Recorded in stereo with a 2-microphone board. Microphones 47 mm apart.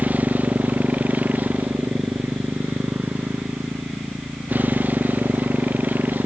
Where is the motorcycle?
35° right (ahead or behind).